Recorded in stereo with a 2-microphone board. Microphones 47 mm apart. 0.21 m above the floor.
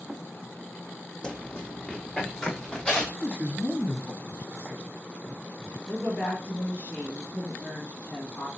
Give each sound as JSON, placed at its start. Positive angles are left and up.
{"t": 1.2, "sound": "running footsteps", "side_deg": 15, "distance_m": 0.6}
{"t": 3.2, "sound": "a man speaking", "side_deg": 25, "distance_m": 1.2}
{"t": 5.9, "sound": "a woman speaking", "side_deg": 45, "distance_m": 2.0}